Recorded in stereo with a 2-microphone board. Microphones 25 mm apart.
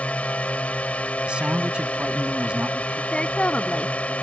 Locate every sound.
0.0 s a drone: 70° left (ahead or behind)
1.3 s a man speaking: 50° right (ahead or behind)
3.1 s a woman speaking: 50° left (ahead or behind)